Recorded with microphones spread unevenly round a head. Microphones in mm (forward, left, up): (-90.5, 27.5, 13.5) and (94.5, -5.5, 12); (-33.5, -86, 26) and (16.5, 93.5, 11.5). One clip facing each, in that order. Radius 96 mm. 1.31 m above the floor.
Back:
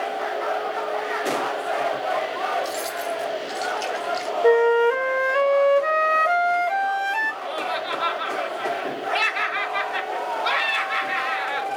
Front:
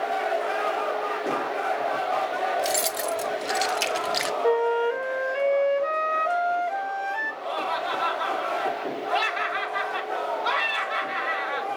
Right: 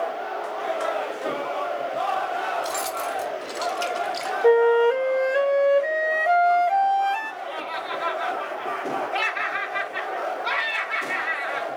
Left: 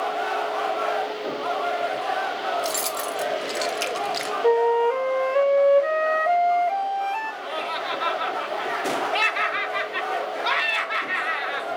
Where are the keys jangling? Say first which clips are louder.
Front 1 dB, left 1 dB; 10° left, 1.9 m; by 4.3 s 5° right, 0.5 m.